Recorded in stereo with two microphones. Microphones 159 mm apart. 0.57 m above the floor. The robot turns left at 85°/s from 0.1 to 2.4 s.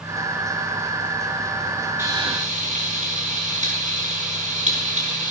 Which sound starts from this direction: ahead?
Frying, at 2.0 s.